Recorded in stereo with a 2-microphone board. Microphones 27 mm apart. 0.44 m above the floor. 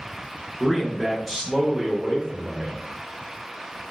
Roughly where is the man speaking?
Centre.